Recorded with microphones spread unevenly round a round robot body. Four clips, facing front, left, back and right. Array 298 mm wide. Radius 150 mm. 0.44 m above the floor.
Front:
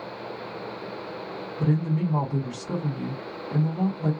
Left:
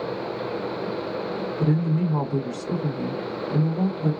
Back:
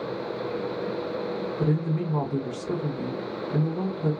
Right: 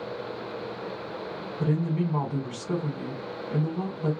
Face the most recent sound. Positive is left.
turn(degrees=130)